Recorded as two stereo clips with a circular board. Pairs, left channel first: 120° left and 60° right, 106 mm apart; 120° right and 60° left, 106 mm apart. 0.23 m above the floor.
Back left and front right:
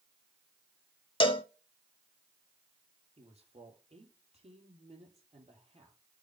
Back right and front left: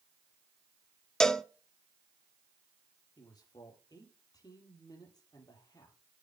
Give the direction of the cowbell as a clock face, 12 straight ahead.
7 o'clock.